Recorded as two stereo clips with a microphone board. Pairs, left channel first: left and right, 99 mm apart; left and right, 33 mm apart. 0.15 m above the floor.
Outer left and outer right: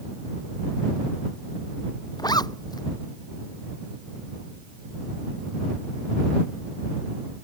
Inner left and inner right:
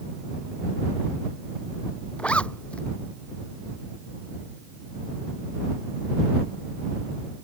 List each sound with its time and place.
2.2 s a zipper: 45° left (ahead or behind)